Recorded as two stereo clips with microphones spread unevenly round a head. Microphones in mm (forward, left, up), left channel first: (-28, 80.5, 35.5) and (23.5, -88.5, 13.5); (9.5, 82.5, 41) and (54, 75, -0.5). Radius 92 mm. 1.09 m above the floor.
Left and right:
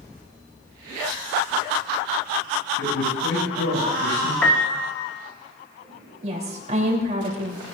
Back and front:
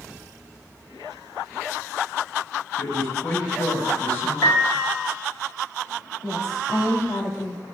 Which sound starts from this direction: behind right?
A woman speaking, at 6.2 s.